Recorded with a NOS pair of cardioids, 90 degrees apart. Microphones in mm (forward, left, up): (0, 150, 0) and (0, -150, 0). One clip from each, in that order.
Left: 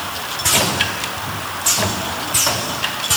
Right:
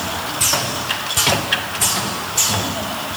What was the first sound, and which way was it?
Only background noise.